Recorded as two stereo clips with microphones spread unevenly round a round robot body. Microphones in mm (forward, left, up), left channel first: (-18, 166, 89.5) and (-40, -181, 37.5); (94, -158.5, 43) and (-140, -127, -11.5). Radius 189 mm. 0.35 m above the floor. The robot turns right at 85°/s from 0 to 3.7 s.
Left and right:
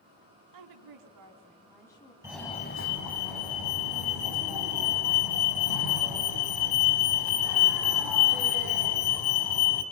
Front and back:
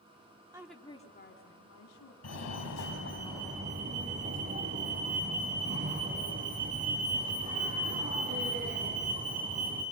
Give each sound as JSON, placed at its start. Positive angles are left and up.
{"t": 0.5, "sound": "a woman speaking", "azimuth_deg": -115, "distance_m": 3.0}
{"t": 2.2, "sound": "a fire alarm", "azimuth_deg": -20, "distance_m": 4.0}